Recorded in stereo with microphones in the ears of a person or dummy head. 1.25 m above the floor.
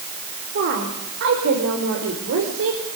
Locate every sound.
0.6 s a woman speaking: 55° right (ahead or behind), 4 m; by 2.8 s 75° right (ahead or behind), 4.5 m